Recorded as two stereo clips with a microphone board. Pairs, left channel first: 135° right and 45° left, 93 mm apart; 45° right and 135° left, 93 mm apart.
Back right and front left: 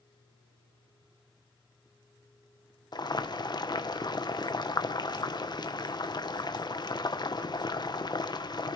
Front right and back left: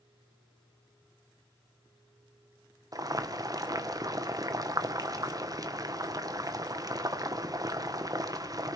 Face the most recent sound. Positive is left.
turn(degrees=-175)